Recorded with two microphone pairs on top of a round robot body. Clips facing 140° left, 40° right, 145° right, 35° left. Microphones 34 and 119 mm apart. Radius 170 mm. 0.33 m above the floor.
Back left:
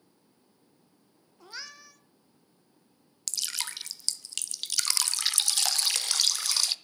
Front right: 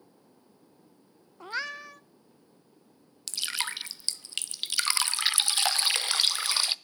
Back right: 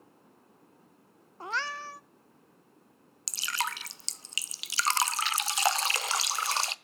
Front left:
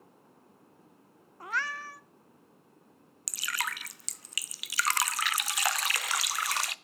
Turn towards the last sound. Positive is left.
turn(degrees=-100)